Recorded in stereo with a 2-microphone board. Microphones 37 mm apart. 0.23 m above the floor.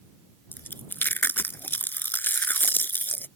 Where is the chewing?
70° left (ahead or behind).